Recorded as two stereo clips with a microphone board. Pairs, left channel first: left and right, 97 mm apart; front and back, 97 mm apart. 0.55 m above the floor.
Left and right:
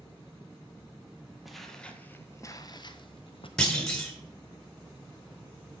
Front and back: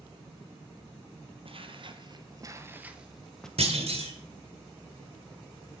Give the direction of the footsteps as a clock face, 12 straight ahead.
6 o'clock.